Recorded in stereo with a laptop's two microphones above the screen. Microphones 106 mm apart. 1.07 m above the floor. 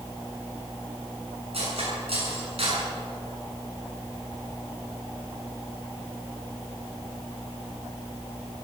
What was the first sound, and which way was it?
Cutlery clinking, 70° right (ahead or behind).